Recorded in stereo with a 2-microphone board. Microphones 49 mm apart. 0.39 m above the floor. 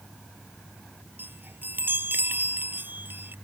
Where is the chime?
45° right (ahead or behind).